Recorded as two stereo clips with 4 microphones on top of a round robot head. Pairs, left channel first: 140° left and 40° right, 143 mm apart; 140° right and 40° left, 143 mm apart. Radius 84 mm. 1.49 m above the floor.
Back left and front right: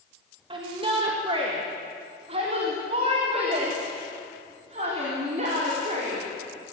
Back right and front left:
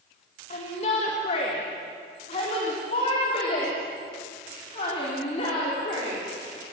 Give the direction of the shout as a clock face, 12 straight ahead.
3 o'clock.